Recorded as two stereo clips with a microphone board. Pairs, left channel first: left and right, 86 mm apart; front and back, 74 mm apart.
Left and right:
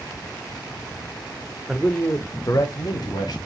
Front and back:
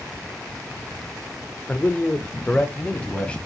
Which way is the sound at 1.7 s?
5° right.